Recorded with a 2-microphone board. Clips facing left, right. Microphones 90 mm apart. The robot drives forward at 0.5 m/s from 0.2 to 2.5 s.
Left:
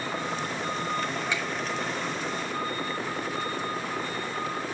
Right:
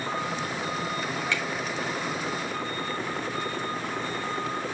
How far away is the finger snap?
About 3.5 m.